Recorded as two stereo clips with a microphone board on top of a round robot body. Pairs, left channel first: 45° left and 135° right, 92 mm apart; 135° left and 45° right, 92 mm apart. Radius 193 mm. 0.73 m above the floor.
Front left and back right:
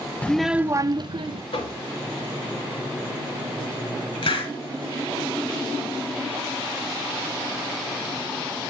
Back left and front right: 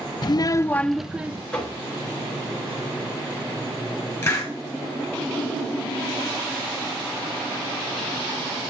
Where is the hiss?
70° left, 3.5 m.